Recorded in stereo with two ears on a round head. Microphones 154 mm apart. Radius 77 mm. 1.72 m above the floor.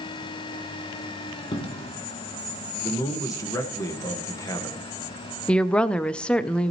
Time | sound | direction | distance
1.5 | a dropped coin | 30° left (ahead or behind) | 1.6 m
2.8 | a man speaking | 20° left (ahead or behind) | 1.6 m
5.5 | a woman speaking | 5° left (ahead or behind) | 0.5 m